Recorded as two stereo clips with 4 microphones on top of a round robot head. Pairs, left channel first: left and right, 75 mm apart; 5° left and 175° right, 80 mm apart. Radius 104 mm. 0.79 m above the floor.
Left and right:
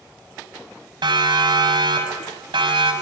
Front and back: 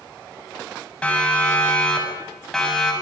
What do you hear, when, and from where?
1.0 s a siren: 75° right, 8 m; by 2.9 s 80° right, 8 m